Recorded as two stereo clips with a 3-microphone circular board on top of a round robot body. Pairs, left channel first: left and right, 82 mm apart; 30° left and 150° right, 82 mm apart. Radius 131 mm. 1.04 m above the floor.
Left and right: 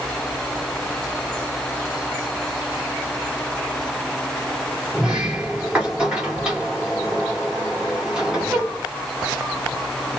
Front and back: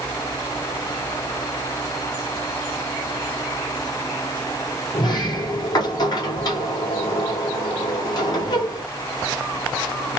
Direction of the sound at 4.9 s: 10° right.